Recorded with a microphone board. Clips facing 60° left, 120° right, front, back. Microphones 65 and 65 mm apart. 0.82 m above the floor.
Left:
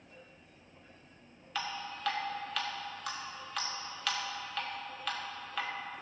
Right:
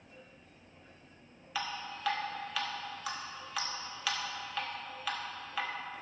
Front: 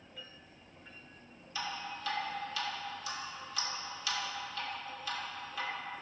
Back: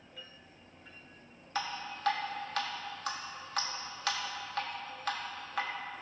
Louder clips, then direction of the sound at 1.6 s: Even, back 2 dB; 155° left.